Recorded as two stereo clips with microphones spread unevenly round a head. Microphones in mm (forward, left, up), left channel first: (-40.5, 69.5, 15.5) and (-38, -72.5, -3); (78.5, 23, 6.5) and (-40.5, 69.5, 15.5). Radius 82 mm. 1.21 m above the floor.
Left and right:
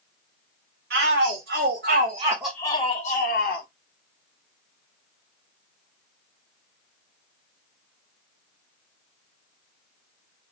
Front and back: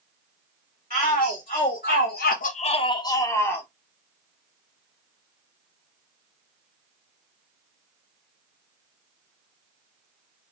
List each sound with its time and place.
0.9 s a shout: 85° right, 1.4 m; by 3.7 s 55° left, 1.3 m